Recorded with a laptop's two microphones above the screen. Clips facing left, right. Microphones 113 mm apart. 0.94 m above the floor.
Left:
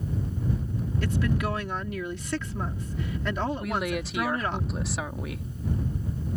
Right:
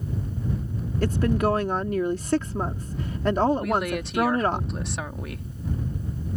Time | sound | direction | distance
1.0 | a woman speaking | 40° right (ahead or behind) | ?
3.6 | a woman speaking | centre (ahead or behind) | ?